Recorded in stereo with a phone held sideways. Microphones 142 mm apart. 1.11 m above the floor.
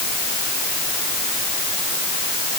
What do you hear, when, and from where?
Only background noise.